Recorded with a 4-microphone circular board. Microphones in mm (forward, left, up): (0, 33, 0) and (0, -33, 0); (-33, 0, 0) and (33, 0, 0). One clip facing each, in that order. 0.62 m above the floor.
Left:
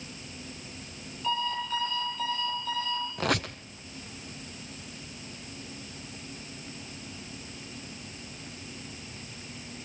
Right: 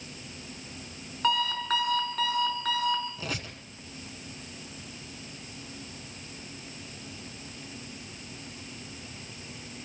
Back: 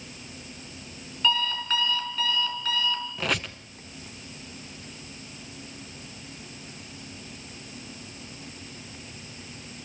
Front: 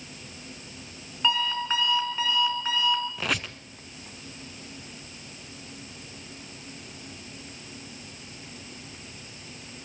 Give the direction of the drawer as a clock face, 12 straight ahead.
I don't hear a drawer.